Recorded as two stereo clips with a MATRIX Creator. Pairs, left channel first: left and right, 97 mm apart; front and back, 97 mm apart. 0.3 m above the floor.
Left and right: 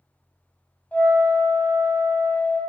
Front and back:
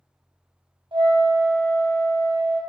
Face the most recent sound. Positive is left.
turn(degrees=165)